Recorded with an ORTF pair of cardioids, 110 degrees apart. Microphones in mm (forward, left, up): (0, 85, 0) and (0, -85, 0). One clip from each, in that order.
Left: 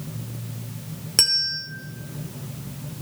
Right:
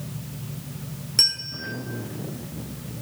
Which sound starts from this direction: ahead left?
A bell, at 1.2 s.